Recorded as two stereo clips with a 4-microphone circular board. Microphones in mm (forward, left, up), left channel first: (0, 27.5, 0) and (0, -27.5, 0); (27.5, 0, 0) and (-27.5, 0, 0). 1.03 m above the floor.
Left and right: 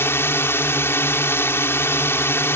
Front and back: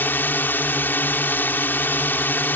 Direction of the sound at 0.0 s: 50° left.